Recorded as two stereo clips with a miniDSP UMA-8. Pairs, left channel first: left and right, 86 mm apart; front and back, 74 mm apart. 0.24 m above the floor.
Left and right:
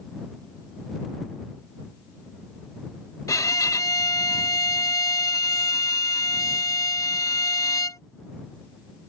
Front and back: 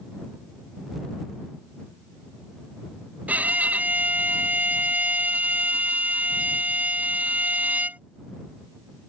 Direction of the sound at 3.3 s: 120° left.